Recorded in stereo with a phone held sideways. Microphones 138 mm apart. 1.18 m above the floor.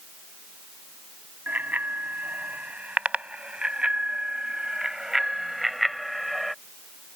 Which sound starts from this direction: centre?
A bicycle bell, at 1.5 s.